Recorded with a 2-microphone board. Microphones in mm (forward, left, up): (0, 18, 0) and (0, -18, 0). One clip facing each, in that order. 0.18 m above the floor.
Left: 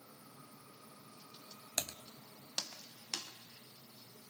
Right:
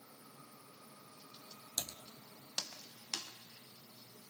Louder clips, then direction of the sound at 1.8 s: Left 3 dB; 80° left.